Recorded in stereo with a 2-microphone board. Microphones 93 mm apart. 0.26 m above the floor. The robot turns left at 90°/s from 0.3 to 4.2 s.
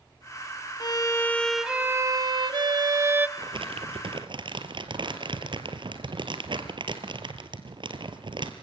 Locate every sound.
0.8 s a violin: 65° left, 0.6 m; by 3.3 s 155° right, 0.6 m
3.4 s crumpling: 45° right, 1.8 m; by 8.5 s 120° right, 1.8 m